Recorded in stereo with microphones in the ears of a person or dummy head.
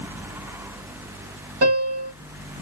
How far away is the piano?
About 1.5 m.